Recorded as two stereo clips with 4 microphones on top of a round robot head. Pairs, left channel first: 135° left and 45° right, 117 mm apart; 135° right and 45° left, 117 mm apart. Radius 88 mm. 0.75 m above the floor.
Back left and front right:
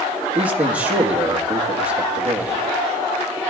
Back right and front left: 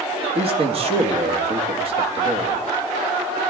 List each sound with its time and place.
0.3 s a man speaking: 30° left, 1.8 m